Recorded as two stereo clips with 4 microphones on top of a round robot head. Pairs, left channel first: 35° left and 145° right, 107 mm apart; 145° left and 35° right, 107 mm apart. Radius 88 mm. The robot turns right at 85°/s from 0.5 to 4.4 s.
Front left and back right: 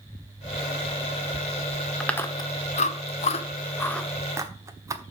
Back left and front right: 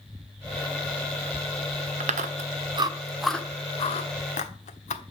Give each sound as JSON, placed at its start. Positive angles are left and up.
{"t": 2.0, "sound": "chewing", "azimuth_deg": -50, "distance_m": 1.1}